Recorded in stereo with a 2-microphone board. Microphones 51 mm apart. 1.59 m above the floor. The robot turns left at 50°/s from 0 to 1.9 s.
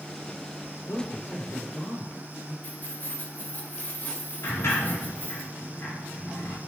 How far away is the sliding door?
About 4 m.